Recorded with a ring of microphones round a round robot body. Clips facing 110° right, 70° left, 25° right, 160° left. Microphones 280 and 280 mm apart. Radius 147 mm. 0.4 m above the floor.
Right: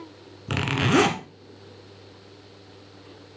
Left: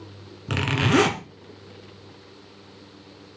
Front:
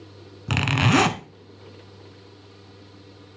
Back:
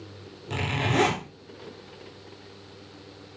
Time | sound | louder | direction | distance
0.5 | a zipper | left 1 dB, front 7 dB | 25° right | 1.1 m